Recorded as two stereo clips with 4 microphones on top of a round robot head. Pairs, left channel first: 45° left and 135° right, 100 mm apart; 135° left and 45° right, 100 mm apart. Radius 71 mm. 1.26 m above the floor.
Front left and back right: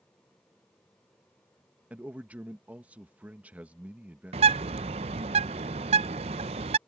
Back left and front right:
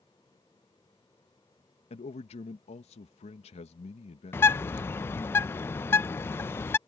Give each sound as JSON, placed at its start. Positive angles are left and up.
{"t": 1.9, "sound": "a man speaking", "azimuth_deg": 150}
{"t": 4.3, "sound": "a bird", "azimuth_deg": -160}